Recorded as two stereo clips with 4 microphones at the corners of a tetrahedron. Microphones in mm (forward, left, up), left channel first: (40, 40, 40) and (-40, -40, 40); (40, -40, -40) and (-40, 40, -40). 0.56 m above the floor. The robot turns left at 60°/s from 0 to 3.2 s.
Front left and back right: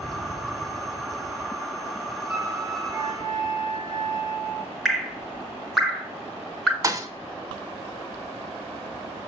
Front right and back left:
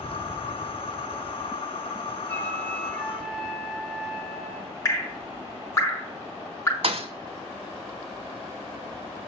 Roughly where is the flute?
Right.